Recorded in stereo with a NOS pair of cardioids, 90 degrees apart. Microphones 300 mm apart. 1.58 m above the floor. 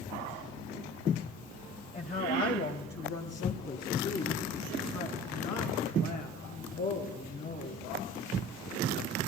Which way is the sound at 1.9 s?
25° left.